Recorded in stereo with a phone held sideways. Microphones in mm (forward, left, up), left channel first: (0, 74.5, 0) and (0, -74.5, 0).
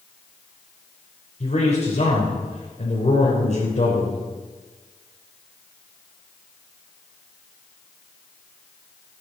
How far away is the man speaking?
About 3.5 m.